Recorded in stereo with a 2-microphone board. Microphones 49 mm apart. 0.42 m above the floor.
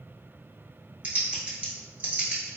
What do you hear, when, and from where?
1.0 s typing on a keyboard: 25° right (ahead or behind), 1.0 m